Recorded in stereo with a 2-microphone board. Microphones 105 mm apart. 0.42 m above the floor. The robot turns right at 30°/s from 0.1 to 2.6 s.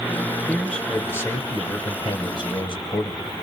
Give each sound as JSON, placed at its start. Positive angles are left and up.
{"t": 0.5, "sound": "a man speaking", "azimuth_deg": 5, "distance_m": 2.0}